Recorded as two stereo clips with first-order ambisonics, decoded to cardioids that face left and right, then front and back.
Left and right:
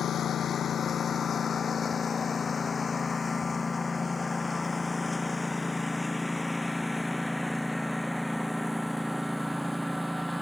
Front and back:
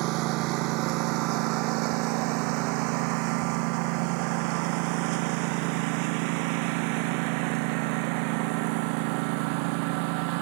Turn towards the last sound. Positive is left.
turn(degrees=180)